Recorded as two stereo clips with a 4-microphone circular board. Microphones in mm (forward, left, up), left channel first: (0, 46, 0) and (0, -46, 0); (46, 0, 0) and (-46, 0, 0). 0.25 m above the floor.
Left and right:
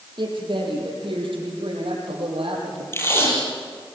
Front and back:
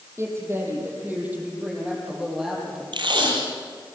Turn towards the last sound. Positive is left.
turn(degrees=155)